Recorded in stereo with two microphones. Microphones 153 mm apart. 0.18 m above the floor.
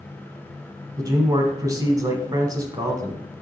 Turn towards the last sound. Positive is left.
turn(degrees=-25)  # may be behind; listen again after turning